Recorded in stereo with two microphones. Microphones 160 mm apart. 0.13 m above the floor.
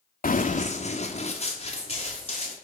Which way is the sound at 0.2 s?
65° left (ahead or behind).